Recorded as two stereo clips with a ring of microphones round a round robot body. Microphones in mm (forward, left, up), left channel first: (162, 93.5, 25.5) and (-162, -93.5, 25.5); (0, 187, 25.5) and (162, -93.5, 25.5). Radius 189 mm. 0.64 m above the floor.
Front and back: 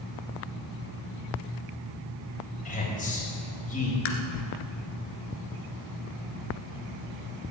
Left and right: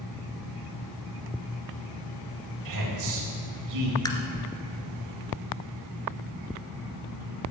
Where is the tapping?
40° left, 2 m.